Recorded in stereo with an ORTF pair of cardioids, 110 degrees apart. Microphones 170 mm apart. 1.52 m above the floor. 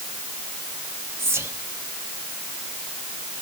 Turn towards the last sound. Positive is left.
turn(degrees=-15)